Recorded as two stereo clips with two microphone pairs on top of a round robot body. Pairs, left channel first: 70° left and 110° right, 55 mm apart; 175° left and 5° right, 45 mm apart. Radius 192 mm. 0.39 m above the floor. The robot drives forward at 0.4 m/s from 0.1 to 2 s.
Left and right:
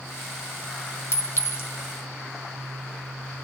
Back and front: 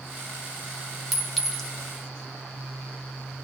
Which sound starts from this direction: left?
A clink, at 1.1 s.